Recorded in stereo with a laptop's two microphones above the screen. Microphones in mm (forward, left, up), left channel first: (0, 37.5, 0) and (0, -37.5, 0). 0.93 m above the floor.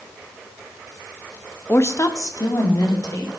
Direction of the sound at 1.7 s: 30° left (ahead or behind).